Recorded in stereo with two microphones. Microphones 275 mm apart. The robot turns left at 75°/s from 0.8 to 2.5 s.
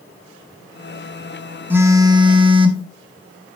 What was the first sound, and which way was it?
A phone buzzing, 5° right (ahead or behind).